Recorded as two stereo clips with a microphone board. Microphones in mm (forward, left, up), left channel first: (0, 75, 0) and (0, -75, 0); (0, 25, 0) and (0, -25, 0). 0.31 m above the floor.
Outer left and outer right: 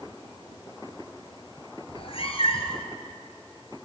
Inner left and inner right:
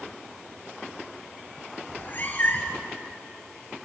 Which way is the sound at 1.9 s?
40° left (ahead or behind).